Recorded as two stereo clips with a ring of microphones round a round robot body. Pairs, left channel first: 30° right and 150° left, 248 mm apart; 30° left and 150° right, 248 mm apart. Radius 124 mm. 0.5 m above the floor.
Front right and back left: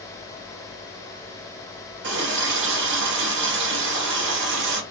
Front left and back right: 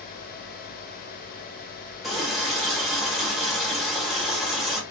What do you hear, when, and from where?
2.0 s a running tap: 120° left, 0.9 m